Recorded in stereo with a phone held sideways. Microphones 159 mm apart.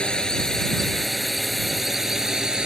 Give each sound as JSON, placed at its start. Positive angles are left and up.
{"t": 0.0, "sound": "a drone", "side_deg": 5}